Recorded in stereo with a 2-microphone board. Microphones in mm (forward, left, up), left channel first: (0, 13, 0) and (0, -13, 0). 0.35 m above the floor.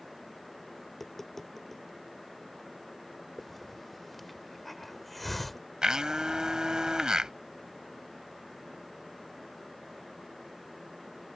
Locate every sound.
0.9 s tapping: 15° left (ahead or behind)
3.4 s a hiss: 5° left (ahead or behind)
5.8 s a blender: 30° right (ahead or behind)